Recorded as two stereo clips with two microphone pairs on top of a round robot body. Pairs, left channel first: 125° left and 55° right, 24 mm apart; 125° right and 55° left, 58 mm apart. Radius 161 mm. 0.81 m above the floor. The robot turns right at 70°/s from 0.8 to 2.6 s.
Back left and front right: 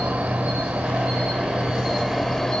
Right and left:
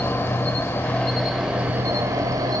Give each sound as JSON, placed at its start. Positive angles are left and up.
{"t": 0.0, "sound": "an insect", "azimuth_deg": -65, "distance_m": 0.9}